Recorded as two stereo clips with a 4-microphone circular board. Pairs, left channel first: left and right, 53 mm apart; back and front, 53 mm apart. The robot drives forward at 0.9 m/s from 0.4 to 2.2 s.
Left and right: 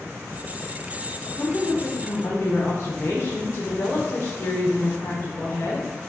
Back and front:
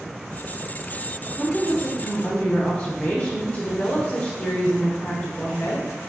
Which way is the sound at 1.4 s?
95° left.